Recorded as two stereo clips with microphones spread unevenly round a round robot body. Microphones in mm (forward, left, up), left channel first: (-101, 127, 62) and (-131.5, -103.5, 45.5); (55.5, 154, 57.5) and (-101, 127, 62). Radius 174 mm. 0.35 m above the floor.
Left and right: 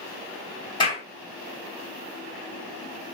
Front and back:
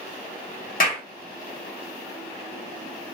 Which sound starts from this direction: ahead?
A clap, at 0.8 s.